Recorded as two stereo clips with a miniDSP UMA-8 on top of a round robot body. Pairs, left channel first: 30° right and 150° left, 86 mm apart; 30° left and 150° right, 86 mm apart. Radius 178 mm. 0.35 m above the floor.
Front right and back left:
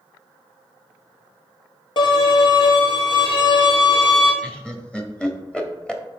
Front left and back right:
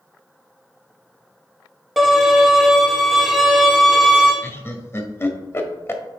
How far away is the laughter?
About 1.5 m.